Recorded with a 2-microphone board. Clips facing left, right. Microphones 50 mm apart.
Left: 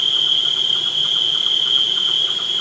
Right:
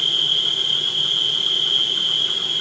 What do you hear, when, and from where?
0.0 s an insect: 50° left (ahead or behind), 1.6 m